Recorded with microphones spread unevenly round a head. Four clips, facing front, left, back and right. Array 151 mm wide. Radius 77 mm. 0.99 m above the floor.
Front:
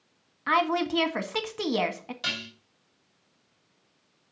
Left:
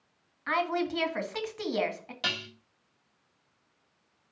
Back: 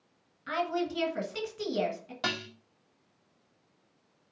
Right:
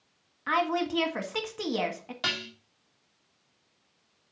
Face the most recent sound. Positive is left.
turn(degrees=-165)